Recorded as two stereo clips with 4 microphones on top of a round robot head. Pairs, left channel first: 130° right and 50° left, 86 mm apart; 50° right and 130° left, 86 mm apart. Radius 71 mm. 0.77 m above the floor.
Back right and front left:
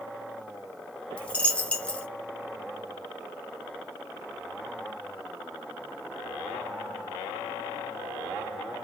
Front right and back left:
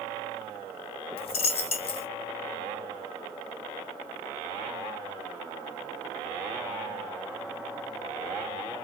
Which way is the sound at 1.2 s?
50° right.